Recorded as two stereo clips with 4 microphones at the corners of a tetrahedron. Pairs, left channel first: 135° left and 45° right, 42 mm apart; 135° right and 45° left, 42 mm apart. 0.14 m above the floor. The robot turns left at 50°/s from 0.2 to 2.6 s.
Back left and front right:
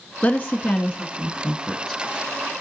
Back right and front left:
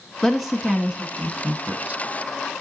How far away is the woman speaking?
About 1.1 m.